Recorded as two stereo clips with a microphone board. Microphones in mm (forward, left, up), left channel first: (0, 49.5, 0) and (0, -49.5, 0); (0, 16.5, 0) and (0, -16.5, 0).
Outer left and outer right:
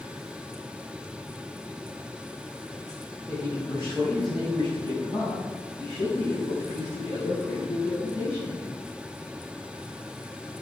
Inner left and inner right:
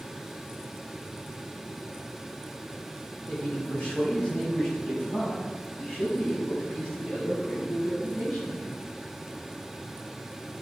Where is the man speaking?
35° left (ahead or behind), 5 m; by 8.7 s 20° left (ahead or behind), 7 m.